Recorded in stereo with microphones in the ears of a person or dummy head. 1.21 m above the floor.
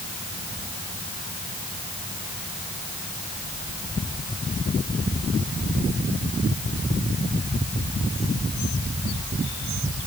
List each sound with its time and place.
Only background noise.